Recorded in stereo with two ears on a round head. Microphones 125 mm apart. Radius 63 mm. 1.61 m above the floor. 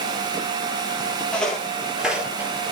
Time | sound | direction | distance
1.3 | footsteps | 10° left (ahead or behind) | 2.5 m